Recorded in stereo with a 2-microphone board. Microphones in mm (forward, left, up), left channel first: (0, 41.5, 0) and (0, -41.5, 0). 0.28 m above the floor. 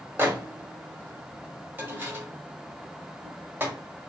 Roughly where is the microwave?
Right.